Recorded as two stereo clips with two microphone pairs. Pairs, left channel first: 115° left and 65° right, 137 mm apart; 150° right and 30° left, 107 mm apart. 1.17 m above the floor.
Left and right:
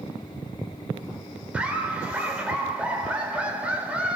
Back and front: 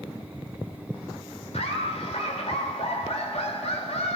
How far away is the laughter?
About 3.5 m.